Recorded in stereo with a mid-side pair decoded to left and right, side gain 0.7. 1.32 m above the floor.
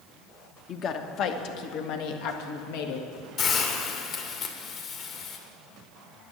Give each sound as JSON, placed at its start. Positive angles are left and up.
{"t": 0.7, "sound": "a woman speaking", "azimuth_deg": 40, "distance_m": 1.3}
{"t": 3.4, "sound": "a hiss", "azimuth_deg": 45, "distance_m": 2.0}